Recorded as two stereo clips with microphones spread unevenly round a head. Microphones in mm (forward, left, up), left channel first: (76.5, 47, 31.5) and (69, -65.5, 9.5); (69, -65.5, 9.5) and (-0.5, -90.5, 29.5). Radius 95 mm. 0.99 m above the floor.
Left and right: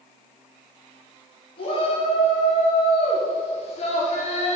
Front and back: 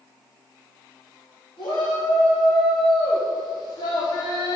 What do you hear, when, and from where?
1.6 s a shout: 50° left, 4 m; by 4.5 s 70° left, 1.7 m